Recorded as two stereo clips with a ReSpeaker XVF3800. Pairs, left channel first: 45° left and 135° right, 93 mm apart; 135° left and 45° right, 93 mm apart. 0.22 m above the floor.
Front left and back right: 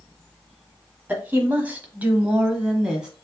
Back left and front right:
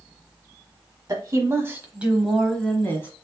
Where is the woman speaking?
70° right, 1.3 m; by 3.1 s 150° left, 1.1 m.